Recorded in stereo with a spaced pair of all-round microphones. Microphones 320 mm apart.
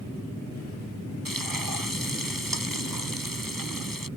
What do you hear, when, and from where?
1.2 s frying: 85° right